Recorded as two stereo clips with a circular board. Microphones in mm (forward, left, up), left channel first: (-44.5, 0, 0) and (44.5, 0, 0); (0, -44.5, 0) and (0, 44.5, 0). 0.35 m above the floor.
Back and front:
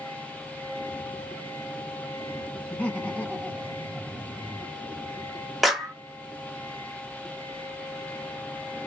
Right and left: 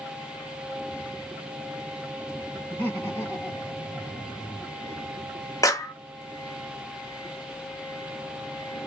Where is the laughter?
135° right, 1.0 m; by 4.8 s 115° right, 1.9 m.